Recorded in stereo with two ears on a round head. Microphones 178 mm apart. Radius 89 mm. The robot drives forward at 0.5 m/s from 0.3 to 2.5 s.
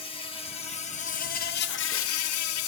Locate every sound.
0.0 s an insect: 25° left (ahead or behind), 1.2 m; by 2.7 s 85° left, 0.5 m